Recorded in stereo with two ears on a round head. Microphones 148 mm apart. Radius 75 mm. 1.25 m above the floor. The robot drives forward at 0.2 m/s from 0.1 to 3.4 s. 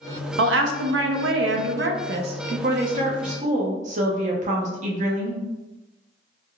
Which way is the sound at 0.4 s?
70° right (ahead or behind).